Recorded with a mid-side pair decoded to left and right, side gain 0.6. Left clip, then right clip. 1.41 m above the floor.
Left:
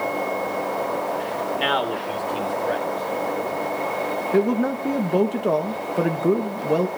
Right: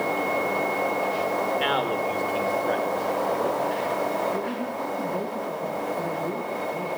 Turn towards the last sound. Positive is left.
turn(degrees=65)